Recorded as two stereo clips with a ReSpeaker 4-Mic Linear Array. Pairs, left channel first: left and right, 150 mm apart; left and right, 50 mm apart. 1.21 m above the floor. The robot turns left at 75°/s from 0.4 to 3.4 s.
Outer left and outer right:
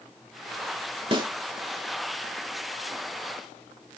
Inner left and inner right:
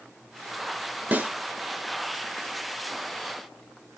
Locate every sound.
1.1 s a snare drum: 35° right (ahead or behind), 1.5 m; by 1.3 s 25° right (ahead or behind), 1.5 m